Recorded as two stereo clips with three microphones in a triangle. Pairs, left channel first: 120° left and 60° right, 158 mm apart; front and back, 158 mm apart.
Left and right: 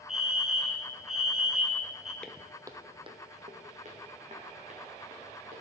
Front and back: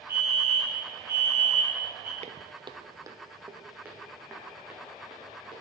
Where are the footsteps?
160° right, 0.6 m; by 5.6 s 95° right, 3.5 m.